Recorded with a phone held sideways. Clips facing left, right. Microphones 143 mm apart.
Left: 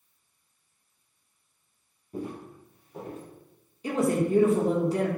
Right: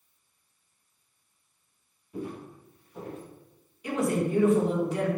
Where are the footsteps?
45° left (ahead or behind), 1.5 m; by 3.2 s 50° left (ahead or behind), 2 m.